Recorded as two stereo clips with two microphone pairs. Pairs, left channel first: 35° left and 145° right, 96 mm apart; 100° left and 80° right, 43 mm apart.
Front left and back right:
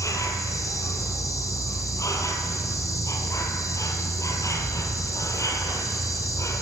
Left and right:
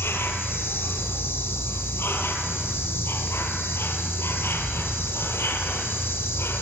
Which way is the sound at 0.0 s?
90° left.